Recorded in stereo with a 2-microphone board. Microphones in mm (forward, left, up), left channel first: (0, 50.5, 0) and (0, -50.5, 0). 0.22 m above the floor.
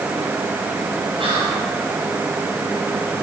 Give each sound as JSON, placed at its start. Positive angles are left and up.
{"t": 1.2, "sound": "whispering", "side_deg": -60, "distance_m": 3.0}